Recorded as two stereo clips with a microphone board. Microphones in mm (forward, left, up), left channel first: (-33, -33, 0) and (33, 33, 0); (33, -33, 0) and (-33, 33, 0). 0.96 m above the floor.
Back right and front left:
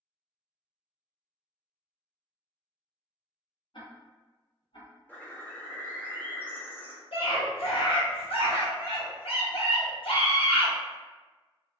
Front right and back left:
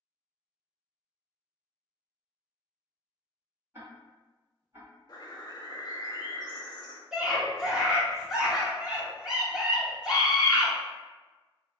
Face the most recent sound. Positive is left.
turn(degrees=-140)